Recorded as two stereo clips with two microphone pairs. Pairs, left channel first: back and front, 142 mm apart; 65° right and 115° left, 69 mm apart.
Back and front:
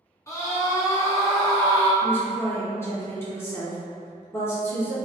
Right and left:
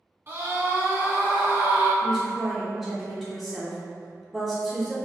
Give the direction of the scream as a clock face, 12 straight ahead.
8 o'clock.